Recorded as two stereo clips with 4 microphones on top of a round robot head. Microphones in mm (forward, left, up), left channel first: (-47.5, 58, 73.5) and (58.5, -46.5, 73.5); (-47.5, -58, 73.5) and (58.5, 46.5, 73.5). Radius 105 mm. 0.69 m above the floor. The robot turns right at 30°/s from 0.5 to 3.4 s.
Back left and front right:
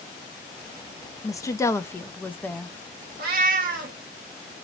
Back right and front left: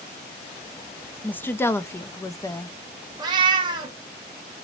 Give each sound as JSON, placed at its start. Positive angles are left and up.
{"t": 1.2, "sound": "a woman speaking", "azimuth_deg": 160, "distance_m": 0.6}
{"t": 3.2, "sound": "a cat meowing", "azimuth_deg": -20, "distance_m": 0.7}